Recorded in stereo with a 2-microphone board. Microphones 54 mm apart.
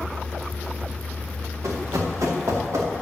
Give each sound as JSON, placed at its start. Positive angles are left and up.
{"t": 1.6, "sound": "running footsteps", "side_deg": -90, "distance_m": 3.5}